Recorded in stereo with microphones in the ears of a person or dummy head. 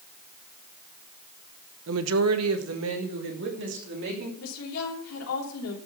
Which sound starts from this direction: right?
A woman speaking, at 1.9 s.